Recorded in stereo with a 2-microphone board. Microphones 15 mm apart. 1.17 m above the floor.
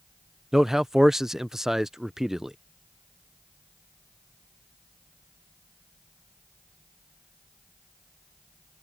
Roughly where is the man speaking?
Right.